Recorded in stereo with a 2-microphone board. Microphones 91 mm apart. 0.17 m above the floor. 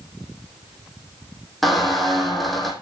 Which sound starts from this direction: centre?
A squeak, at 1.6 s.